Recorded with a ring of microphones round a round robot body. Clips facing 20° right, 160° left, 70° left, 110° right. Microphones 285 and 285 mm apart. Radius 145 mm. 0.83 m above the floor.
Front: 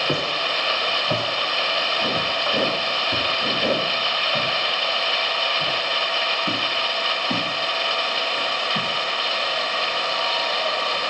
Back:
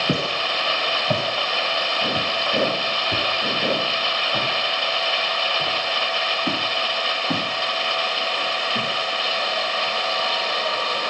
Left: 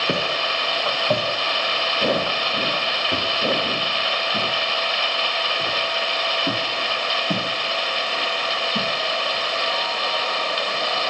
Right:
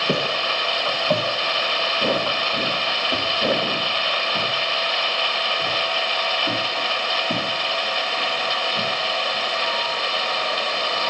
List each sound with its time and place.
0.1 s footsteps: 150° left, 2.5 m; by 8.9 s 115° left, 7 m